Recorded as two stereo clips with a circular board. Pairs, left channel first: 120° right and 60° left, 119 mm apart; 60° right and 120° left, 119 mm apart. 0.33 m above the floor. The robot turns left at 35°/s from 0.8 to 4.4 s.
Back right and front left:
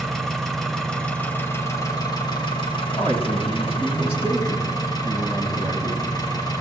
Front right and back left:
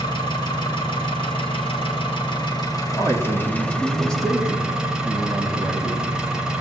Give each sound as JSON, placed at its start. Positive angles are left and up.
{"t": 0.0, "sound": "an engine running", "azimuth_deg": -35, "distance_m": 1.0}
{"t": 2.9, "sound": "a man speaking", "azimuth_deg": -100, "distance_m": 1.9}